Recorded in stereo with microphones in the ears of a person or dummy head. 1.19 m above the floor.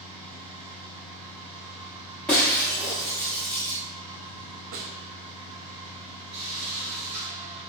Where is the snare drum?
45° right (ahead or behind), 0.6 m.